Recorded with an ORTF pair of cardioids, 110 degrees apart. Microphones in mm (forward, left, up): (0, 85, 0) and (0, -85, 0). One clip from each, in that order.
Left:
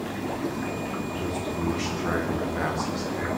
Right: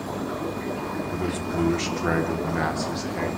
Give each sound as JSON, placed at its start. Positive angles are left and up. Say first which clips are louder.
{"t": 1.1, "sound": "a man speaking", "louder": "right 2 dB", "azimuth_deg": -40, "distance_m": 3.5}